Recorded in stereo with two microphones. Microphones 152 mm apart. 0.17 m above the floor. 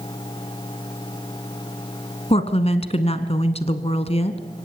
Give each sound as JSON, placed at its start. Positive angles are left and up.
{"t": 2.3, "sound": "a woman speaking", "side_deg": 40, "distance_m": 1.4}